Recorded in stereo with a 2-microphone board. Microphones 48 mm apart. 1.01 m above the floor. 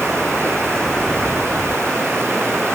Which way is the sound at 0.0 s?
15° left (ahead or behind).